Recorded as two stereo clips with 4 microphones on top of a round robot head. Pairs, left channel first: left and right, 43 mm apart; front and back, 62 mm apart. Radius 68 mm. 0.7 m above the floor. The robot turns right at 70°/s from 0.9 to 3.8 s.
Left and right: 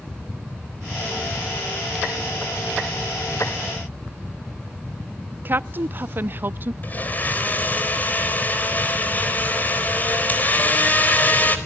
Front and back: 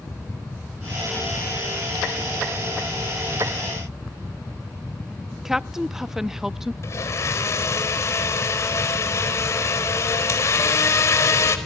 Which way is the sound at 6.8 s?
40° left.